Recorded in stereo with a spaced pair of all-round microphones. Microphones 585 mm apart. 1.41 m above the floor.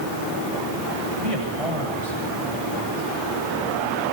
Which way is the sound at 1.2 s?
65° right (ahead or behind).